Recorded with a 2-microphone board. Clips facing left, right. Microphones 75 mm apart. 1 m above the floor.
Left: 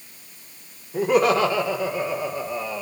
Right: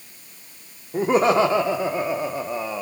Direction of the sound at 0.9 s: 30° right (ahead or behind).